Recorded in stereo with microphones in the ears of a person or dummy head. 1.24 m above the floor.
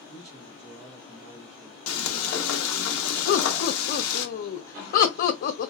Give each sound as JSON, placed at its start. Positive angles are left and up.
{"t": 0.1, "sound": "a man speaking", "side_deg": -5, "distance_m": 1.6}
{"t": 1.9, "sound": "frying", "side_deg": 85, "distance_m": 0.8}
{"t": 3.3, "sound": "laughter", "side_deg": 50, "distance_m": 0.8}